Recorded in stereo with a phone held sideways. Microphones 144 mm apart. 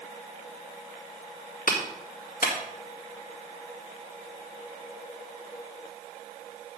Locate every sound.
1.7 s a clap: 75° left (ahead or behind), 2 m